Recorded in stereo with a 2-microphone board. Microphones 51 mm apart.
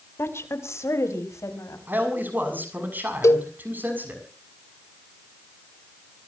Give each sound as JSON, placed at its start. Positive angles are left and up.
{"t": 0.2, "sound": "a woman speaking", "side_deg": 55, "distance_m": 3.0}
{"t": 1.9, "sound": "a man speaking", "side_deg": -40, "distance_m": 6.5}
{"t": 3.2, "sound": "a cowbell", "side_deg": 70, "distance_m": 1.9}